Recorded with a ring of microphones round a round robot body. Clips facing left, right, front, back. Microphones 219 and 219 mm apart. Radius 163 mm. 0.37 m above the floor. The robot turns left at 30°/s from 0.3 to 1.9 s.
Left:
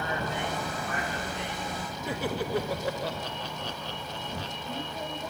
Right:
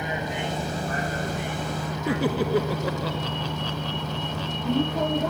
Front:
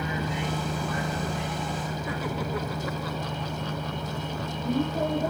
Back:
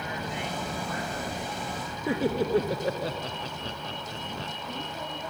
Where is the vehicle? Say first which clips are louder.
Right 3 dB, front 4 dB; 15° right; by 5.3 s 65° right.